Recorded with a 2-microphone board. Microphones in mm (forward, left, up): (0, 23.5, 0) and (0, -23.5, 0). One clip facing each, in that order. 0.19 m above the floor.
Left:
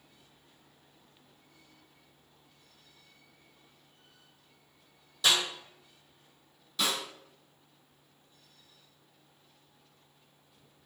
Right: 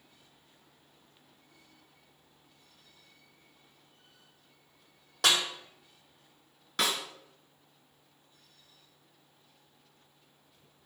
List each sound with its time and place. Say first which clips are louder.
5.2 s a snare drum: right 1 dB; 65° right (ahead or behind), 1.8 m
6.8 s a snare drum: right 1 dB; 60° right (ahead or behind), 1.2 m